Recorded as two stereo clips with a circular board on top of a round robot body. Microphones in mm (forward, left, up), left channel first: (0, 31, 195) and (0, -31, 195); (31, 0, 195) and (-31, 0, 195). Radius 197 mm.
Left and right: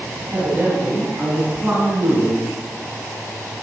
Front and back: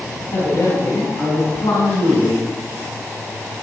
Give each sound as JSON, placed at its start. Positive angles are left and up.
{"t": 0.3, "sound": "a man speaking", "azimuth_deg": -40, "distance_m": 4.5}